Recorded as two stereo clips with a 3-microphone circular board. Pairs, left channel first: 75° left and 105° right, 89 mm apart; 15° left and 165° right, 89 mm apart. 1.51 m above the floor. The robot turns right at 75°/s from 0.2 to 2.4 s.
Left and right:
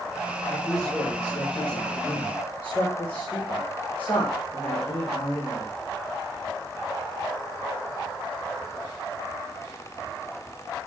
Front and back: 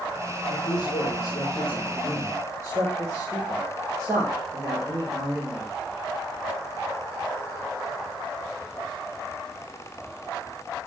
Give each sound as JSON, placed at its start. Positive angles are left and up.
{"t": 0.5, "sound": "a man speaking", "azimuth_deg": 0, "distance_m": 6.0}